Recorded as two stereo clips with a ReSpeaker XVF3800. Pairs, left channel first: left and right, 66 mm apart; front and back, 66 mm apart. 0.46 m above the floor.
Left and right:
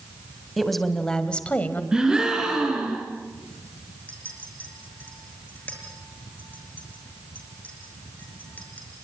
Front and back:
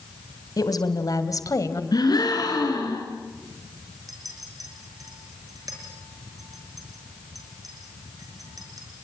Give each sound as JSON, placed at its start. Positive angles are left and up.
{"t": 0.6, "sound": "a woman speaking", "azimuth_deg": 0, "distance_m": 3.0}
{"t": 1.9, "sound": "a gasp", "azimuth_deg": -10, "distance_m": 5.0}
{"t": 4.1, "sound": "a clink", "azimuth_deg": 155, "distance_m": 5.0}